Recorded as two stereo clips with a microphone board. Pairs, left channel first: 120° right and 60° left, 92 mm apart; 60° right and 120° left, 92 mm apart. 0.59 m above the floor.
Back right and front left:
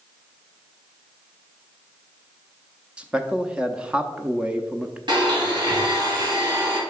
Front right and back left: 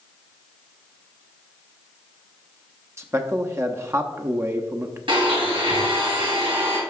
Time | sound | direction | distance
3.0 | a man speaking | 125° left | 0.6 m
5.1 | a blender | 95° left | 2.5 m